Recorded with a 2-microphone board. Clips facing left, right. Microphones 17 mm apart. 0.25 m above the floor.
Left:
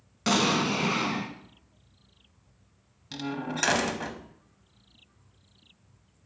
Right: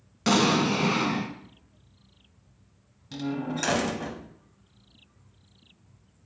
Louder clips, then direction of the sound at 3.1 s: Right 2 dB; 25° left (ahead or behind).